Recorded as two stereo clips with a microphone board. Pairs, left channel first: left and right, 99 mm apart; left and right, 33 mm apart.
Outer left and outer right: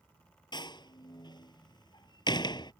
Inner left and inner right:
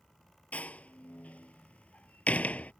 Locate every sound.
0.5 s a door slam: 50° left (ahead or behind)